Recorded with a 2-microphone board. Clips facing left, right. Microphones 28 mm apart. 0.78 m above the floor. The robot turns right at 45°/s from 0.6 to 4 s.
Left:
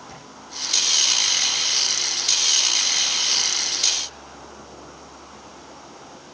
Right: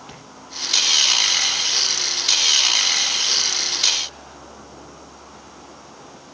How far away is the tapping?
About 8 m.